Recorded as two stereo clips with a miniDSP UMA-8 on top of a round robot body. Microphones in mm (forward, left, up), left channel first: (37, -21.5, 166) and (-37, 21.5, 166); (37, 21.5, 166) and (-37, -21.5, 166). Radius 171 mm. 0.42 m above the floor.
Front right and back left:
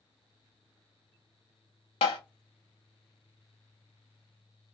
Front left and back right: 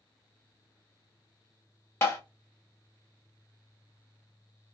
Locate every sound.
2.0 s tapping: 30° right, 0.5 m